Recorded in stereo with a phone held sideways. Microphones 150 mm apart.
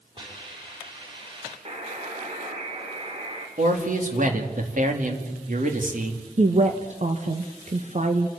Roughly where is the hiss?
Right.